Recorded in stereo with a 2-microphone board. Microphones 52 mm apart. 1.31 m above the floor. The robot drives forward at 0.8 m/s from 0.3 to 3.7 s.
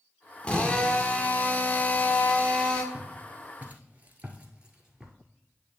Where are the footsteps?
30° right (ahead or behind), 1.9 m; by 5.2 s 15° right (ahead or behind), 1.5 m.